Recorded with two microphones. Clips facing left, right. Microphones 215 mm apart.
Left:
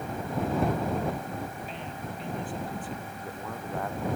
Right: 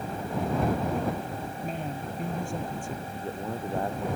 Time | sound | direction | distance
1.6 | a man speaking | 45° right (ahead or behind) | ?
3.1 | a man speaking | 25° right (ahead or behind) | ?